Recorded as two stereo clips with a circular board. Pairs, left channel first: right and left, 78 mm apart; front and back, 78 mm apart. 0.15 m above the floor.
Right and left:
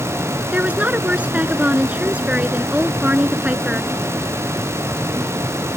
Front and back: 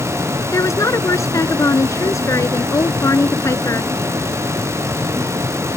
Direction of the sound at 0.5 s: 25° left.